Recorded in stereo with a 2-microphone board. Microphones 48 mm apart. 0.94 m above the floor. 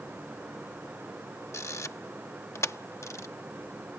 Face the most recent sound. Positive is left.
turn(degrees=70)  # may be behind; listen again after turning